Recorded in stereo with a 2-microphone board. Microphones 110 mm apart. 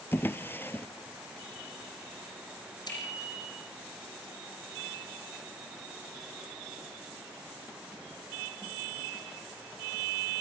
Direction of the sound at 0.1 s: 20° left (ahead or behind).